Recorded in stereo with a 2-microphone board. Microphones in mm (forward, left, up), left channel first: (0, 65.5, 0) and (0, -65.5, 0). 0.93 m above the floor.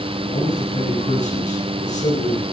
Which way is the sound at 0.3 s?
65° left (ahead or behind).